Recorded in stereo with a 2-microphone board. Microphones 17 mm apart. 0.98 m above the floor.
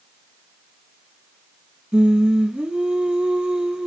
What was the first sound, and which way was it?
Singing, 80° right.